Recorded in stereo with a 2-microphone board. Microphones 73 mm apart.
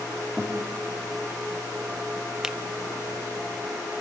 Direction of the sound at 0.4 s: 10° left (ahead or behind).